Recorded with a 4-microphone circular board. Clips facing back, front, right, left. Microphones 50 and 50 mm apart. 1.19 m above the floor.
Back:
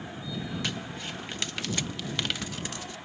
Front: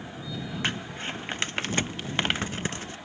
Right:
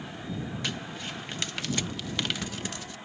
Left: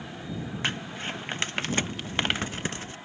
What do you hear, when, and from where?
0.6 s crumpling: 50° left